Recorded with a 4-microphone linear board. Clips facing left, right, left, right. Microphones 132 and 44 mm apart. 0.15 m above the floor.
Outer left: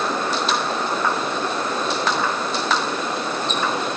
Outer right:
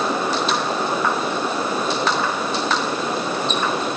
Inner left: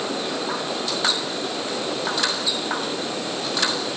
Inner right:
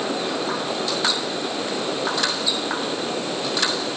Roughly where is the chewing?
No chewing in this recording.